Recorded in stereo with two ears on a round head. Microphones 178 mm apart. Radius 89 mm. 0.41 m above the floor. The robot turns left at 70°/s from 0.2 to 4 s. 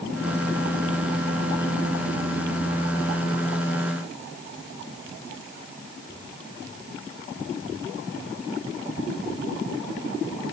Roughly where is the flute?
I don't hear a flute.